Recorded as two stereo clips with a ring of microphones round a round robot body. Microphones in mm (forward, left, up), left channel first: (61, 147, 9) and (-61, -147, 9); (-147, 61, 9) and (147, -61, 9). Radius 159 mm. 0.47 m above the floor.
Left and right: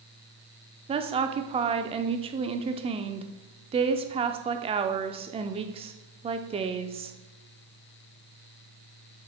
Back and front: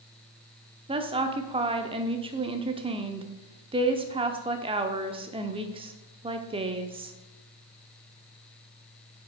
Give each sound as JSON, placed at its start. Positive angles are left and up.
{"t": 0.9, "sound": "a woman speaking", "azimuth_deg": -70, "distance_m": 0.7}